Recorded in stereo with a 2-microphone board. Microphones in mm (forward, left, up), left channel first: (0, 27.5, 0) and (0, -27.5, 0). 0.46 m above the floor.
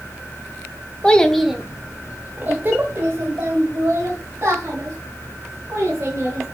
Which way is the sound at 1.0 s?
20° left (ahead or behind).